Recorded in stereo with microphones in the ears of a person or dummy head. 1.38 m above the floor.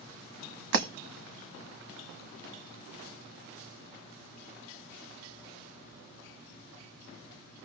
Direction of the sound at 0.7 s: 60° right (ahead or behind).